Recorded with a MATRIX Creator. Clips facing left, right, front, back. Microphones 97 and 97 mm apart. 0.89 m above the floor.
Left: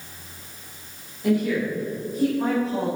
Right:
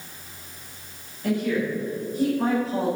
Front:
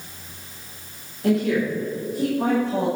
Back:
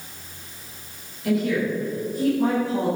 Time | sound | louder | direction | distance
1.2 | a woman speaking | left 2 dB, front 2 dB | 10° left | 3 m